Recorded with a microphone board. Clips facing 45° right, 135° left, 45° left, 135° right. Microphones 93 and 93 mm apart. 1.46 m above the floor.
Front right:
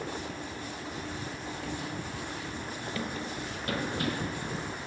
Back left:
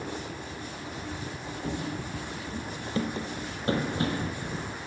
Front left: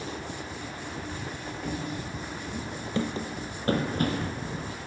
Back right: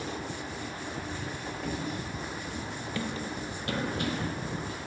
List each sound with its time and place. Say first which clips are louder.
1.6 s running footsteps: back left 6 dB, front left 1 dB; 130° left, 1.6 m; by 4.4 s 80° left, 3 m